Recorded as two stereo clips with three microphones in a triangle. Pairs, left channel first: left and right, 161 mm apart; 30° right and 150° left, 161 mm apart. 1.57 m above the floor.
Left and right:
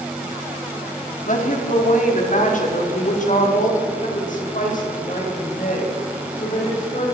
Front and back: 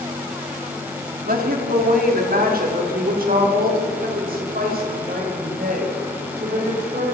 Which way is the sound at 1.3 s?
125° left.